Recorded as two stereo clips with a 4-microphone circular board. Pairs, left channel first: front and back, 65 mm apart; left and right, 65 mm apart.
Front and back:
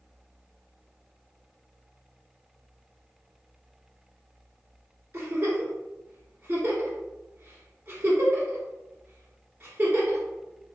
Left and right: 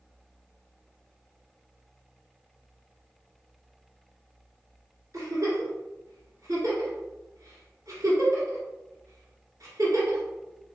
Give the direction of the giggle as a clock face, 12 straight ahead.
4 o'clock.